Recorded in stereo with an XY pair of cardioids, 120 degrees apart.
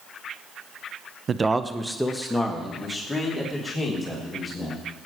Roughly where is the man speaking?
Ahead right.